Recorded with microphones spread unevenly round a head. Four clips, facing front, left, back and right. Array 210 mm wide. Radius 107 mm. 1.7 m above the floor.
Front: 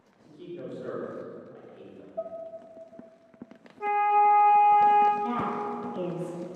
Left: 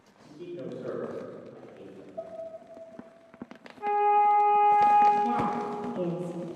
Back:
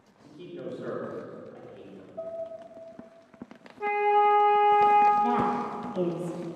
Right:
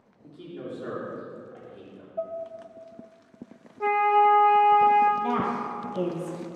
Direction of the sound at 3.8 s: 115° right.